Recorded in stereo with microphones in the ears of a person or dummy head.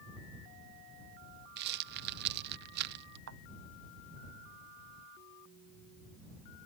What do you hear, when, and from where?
1.6 s a rattle: 55° right (ahead or behind)
3.3 s a thud: 60° right (ahead or behind)